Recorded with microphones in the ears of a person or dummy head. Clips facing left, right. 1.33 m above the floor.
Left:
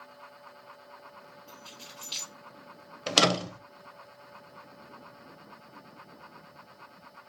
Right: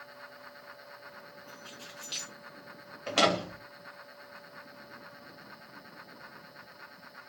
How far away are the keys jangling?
About 1.5 m.